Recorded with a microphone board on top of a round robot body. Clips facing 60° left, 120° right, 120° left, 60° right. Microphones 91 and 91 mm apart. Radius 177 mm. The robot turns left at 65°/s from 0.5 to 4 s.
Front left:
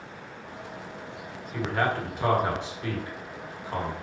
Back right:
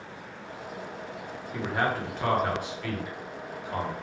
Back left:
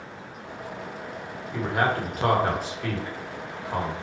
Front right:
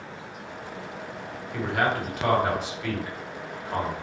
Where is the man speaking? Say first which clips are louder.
Front left 1 dB, back left 1 dB; 175° right, 2.0 m; by 3.9 s 30° left, 2.0 m.